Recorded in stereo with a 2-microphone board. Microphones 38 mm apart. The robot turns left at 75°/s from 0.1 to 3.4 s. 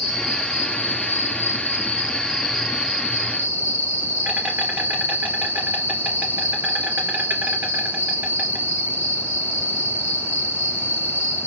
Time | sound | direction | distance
0.0 | an insect | 175° right | 3 m